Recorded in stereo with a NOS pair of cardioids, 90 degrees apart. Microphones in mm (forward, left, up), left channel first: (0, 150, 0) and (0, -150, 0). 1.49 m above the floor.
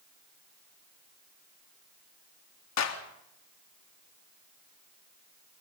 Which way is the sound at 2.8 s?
60° left.